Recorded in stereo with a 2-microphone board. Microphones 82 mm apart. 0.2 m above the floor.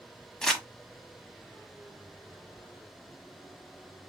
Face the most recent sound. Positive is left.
turn(degrees=5)  # may be behind; listen again after turning